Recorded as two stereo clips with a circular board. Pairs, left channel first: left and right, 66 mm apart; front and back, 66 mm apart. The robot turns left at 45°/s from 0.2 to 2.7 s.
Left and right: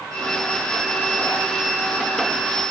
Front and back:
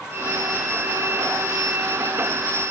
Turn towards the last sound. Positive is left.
No sound to turn to.